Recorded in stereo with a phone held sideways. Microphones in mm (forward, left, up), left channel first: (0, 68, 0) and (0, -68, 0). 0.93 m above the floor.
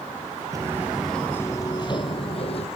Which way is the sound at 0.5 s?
25° right (ahead or behind).